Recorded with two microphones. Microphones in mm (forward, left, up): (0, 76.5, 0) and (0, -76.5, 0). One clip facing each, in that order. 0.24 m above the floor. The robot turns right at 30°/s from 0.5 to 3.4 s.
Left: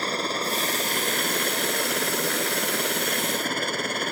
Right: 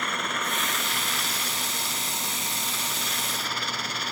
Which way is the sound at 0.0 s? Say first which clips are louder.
Left 4 dB; 35° left.